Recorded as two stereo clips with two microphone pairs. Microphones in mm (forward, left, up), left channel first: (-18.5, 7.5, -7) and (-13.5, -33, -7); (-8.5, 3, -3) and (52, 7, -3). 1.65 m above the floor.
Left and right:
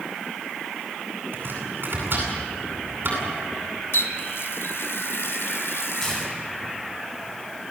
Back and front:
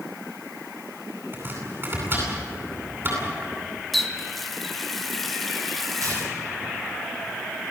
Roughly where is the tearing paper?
Ahead left.